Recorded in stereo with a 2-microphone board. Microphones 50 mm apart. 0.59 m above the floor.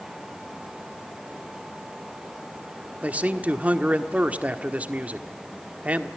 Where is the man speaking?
30° right (ahead or behind), 1.3 m.